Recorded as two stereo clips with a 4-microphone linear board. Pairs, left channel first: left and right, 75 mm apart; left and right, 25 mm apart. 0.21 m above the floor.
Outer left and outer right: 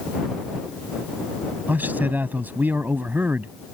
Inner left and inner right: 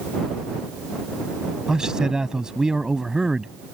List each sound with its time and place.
1.7 s a man speaking: 25° right (ahead or behind)